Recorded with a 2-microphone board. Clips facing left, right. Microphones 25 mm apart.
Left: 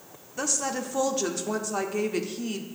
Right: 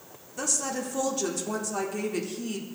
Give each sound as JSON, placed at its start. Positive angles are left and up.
{"t": 0.4, "sound": "a woman speaking", "side_deg": 20, "distance_m": 0.7}